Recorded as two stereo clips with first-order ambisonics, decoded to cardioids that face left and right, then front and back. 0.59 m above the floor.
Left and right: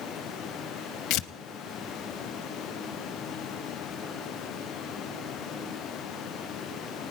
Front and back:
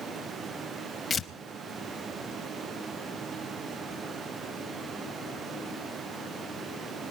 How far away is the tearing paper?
About 0.6 m.